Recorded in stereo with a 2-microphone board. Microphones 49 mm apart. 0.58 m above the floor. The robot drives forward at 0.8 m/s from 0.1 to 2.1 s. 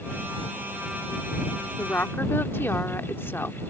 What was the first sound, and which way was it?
A woman speaking, 55° left (ahead or behind).